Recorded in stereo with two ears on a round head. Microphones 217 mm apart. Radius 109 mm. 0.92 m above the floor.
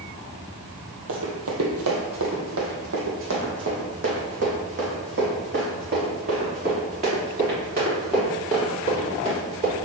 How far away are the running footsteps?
About 1.9 m.